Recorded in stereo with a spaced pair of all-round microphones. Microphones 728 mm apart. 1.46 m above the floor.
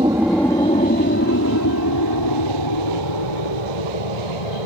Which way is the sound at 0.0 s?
5° right (ahead or behind).